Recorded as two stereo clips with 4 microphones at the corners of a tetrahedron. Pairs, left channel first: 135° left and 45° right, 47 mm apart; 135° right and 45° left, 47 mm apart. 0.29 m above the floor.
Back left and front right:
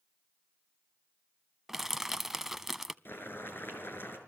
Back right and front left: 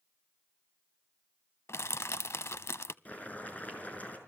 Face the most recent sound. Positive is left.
turn(degrees=170)